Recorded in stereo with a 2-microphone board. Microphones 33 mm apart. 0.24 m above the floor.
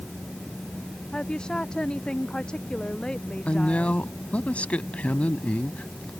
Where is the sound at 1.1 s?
25° left (ahead or behind).